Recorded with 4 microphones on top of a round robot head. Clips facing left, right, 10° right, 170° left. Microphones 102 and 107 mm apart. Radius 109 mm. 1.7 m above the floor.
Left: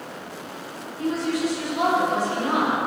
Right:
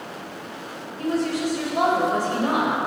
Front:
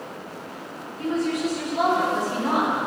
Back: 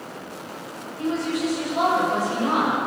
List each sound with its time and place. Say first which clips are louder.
1.0 s a woman speaking: even, even; 125° right, 7 m